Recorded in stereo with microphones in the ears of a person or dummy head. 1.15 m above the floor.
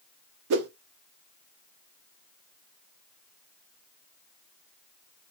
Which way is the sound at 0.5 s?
55° right (ahead or behind).